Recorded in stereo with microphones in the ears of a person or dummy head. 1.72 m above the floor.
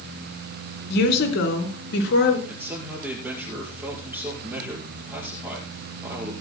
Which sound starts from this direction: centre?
A man speaking, at 2.5 s.